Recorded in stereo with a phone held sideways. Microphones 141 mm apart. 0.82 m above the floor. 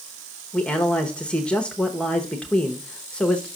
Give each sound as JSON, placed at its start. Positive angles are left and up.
{"t": 0.5, "sound": "a man speaking", "side_deg": 5, "distance_m": 0.8}